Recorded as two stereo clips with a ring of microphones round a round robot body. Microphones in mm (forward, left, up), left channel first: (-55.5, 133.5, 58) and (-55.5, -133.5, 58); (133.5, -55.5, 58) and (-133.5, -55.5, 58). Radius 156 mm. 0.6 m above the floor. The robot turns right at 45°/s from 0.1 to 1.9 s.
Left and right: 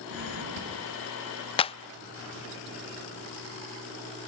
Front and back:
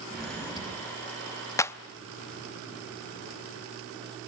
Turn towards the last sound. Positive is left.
turn(degrees=75)